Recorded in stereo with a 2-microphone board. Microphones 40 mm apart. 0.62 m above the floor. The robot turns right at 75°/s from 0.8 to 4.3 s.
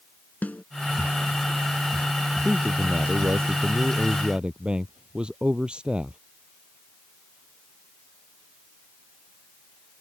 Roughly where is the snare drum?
Left.